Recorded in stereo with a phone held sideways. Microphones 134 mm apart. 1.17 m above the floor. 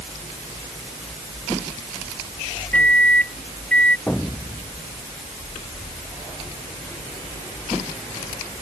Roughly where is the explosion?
Centre.